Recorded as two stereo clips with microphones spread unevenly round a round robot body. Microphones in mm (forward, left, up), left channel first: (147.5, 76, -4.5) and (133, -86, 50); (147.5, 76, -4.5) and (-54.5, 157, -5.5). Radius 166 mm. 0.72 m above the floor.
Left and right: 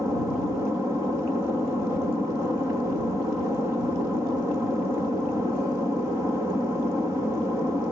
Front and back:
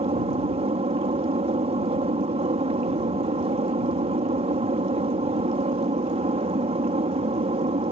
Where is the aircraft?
170° left.